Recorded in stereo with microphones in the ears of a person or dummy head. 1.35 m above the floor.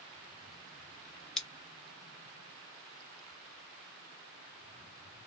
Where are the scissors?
Centre (ahead or behind), 0.9 m.